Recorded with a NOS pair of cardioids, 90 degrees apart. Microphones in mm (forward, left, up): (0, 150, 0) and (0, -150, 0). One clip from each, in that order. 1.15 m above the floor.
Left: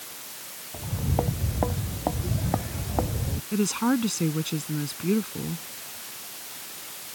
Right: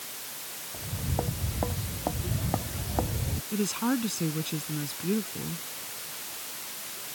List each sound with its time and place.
0.7 s footsteps: 45° left; by 3.4 s 20° left
3.5 s a woman speaking: 40° left